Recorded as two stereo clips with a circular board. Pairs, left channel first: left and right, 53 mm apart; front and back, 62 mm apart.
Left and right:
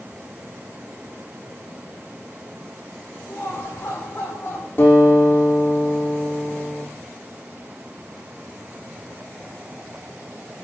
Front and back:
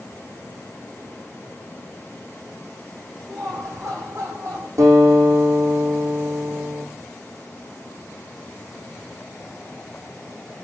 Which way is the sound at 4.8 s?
140° left.